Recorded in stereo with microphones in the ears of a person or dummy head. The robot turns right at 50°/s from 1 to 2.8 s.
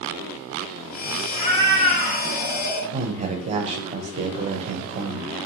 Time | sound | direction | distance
1.3 | a cat meowing | 15° left | 1.9 m
2.9 | a man speaking | 35° right (ahead or behind) | 0.5 m